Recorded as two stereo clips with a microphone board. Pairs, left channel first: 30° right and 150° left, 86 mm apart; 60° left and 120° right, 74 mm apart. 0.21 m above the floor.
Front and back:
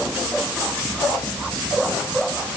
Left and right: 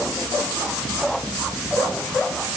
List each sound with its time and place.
Only background noise.